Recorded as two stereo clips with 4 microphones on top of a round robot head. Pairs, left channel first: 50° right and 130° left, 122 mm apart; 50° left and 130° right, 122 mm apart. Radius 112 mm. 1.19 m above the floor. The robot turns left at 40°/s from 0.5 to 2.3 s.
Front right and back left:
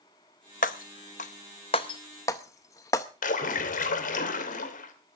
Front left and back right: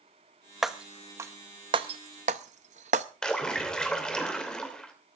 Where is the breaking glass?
45° right, 0.5 m; by 3.1 s 110° right, 0.5 m.